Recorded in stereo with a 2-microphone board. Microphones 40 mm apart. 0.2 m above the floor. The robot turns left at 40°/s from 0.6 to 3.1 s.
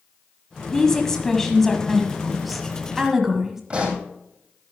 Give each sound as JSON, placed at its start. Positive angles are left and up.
{"t": 0.7, "sound": "a woman speaking", "side_deg": 15, "distance_m": 1.6}
{"t": 3.7, "sound": "a pop", "side_deg": -30, "distance_m": 3.5}